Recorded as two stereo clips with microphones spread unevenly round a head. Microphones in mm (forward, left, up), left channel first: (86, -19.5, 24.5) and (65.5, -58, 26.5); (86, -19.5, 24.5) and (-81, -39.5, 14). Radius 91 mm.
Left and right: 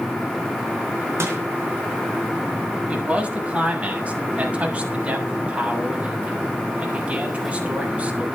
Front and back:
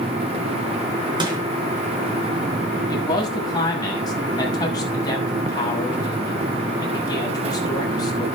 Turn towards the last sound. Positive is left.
turn(degrees=-60)